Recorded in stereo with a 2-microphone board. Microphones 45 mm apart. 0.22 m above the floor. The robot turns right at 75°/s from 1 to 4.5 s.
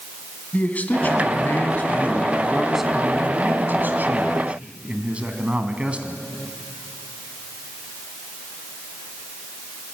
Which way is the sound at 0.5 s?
55° left.